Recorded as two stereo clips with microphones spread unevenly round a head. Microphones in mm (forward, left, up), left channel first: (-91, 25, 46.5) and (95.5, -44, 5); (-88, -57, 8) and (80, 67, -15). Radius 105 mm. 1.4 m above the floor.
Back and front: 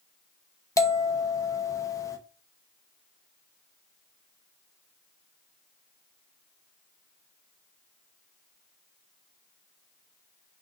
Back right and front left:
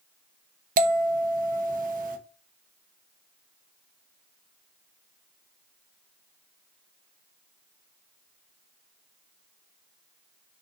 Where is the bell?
90° left, 1.1 m.